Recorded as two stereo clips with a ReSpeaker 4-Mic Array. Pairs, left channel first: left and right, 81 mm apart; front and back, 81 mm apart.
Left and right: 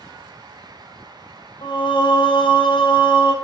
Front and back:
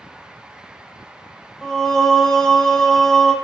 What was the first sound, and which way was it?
Singing, 85° left.